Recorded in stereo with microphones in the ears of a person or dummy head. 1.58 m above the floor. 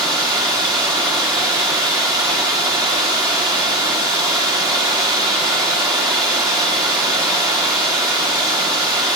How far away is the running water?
About 0.8 m.